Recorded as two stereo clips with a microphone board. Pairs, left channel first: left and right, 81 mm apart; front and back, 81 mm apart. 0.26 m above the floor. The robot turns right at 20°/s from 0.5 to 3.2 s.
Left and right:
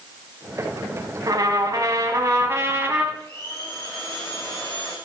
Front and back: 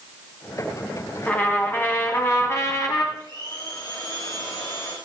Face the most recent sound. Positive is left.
turn(degrees=35)